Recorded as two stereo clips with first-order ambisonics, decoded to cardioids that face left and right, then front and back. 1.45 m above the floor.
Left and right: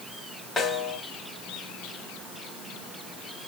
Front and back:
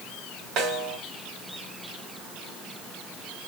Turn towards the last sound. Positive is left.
turn(degrees=155)